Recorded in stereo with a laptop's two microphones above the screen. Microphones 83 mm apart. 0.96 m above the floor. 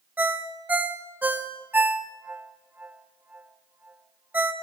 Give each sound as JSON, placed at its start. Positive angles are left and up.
{"t": 0.2, "sound": "a ringtone", "side_deg": -20, "distance_m": 0.6}